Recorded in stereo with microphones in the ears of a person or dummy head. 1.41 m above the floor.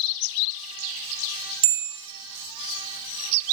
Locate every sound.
1.6 s a bell: 70° right (ahead or behind), 3 m